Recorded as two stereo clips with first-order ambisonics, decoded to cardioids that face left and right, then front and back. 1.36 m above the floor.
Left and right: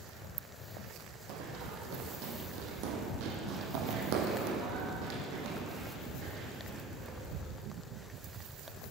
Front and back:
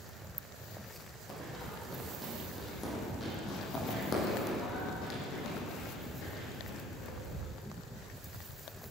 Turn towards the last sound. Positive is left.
turn(degrees=-30)